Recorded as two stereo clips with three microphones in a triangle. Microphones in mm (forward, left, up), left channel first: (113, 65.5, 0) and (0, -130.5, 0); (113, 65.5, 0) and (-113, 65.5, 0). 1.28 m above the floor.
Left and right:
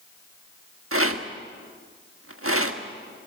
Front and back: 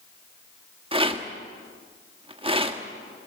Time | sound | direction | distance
0.9 | a rattle | 115° right | 1.3 m